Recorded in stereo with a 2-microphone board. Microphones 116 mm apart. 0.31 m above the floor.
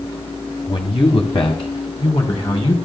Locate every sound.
0.7 s a man speaking: 50° left (ahead or behind), 1.6 m